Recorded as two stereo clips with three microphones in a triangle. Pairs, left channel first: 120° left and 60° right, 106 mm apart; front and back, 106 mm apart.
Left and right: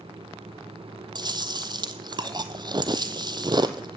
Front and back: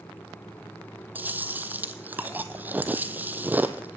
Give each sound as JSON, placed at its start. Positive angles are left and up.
{"t": 1.1, "sound": "chewing", "azimuth_deg": -110, "distance_m": 1.0}